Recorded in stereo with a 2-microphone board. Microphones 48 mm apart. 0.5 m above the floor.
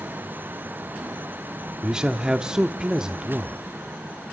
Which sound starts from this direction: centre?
A man speaking, at 1.8 s.